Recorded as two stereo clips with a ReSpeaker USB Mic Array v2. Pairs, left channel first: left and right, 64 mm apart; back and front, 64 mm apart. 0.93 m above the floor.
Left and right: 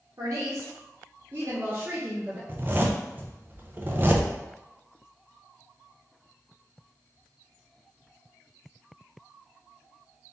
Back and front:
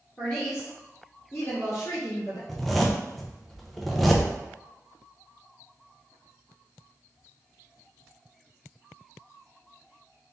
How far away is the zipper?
About 0.7 m.